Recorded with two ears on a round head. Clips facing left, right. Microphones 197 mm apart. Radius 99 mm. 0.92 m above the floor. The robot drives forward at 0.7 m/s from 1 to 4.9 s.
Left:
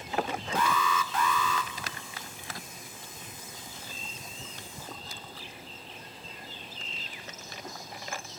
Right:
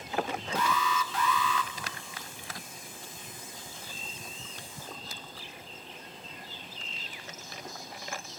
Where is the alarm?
45° left (ahead or behind), 0.8 m; by 1.7 s 35° left (ahead or behind), 0.9 m.